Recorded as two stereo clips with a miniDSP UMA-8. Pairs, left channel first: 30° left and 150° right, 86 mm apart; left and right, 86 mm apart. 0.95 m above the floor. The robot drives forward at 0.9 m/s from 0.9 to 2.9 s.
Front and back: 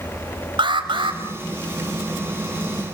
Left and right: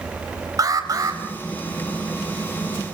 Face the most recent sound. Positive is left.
turn(degrees=-150)